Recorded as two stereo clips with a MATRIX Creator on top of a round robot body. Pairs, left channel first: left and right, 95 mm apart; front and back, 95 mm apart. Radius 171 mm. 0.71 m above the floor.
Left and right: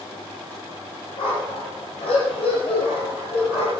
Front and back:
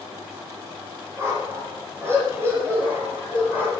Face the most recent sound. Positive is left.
turn(degrees=105)